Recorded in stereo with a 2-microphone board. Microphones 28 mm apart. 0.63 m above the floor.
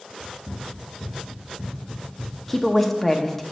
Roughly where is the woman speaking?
Centre.